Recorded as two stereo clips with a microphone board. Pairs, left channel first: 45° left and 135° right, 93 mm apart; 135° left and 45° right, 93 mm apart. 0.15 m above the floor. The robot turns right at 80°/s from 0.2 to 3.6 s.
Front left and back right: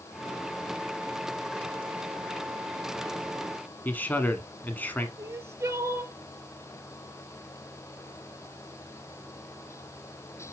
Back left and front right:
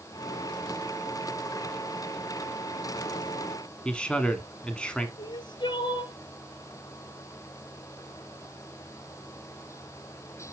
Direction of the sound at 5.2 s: 165° left.